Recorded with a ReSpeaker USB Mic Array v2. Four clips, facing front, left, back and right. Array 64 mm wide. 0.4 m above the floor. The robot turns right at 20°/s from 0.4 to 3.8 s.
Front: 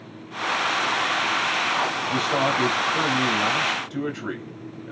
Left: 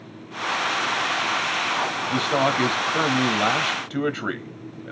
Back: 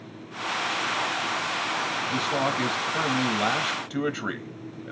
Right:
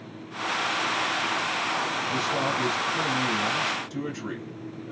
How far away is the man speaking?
About 2.5 m.